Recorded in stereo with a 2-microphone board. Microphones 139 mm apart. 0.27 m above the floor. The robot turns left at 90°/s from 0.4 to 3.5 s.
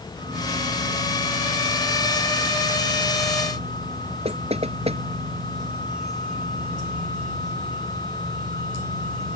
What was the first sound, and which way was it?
Knocking, 50° right (ahead or behind).